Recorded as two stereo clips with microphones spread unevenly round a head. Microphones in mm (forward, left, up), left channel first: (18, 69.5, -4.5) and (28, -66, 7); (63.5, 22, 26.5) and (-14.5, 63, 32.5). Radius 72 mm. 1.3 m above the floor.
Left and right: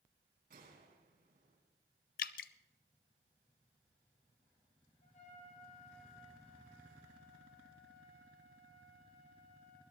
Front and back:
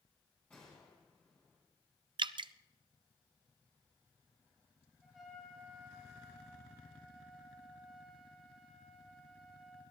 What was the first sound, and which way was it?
A gunshot, 110° right.